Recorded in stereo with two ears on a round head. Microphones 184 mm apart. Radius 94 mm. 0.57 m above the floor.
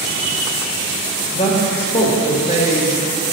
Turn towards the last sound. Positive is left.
turn(degrees=35)  # may be behind; listen again after turning